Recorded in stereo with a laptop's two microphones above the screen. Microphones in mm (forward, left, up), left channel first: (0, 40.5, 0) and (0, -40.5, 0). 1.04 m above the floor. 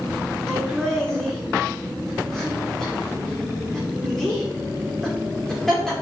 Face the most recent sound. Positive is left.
turn(degrees=5)  # may be behind; listen again after turning